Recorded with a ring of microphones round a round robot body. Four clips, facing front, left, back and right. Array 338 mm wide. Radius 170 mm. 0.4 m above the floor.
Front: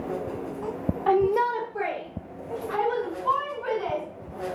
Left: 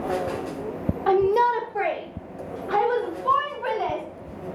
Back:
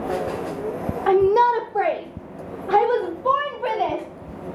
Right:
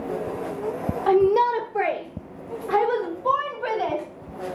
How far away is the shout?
About 1.2 m.